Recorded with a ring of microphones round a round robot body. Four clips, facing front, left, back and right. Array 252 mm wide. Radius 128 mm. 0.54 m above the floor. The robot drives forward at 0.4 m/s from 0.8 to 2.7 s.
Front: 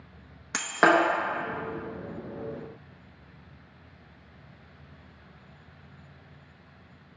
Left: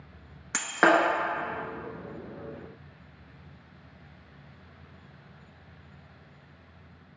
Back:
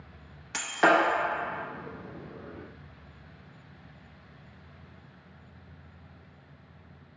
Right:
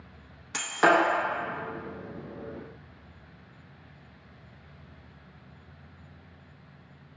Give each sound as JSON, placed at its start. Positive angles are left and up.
{"t": 0.5, "sound": "breaking glass", "azimuth_deg": 35, "distance_m": 0.7}